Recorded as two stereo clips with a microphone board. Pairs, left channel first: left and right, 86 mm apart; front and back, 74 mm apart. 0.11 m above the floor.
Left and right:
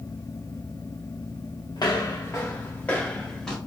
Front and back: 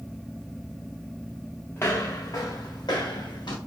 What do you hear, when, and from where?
1.8 s footsteps: 55° left, 0.8 m; by 3.6 s 5° left, 1.2 m